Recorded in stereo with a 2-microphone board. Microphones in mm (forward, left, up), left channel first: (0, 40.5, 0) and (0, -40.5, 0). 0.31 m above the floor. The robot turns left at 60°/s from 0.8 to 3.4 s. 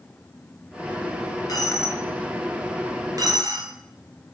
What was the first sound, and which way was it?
A dropped coin, 55° left (ahead or behind).